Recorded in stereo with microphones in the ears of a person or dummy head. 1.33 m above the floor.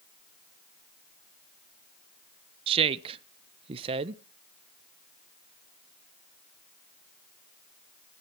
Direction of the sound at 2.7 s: 35° right (ahead or behind).